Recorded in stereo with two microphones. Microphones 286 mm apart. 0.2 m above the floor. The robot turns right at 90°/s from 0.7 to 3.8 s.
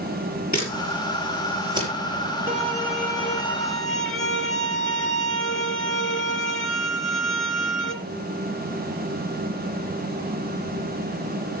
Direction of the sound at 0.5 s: 70° left (ahead or behind).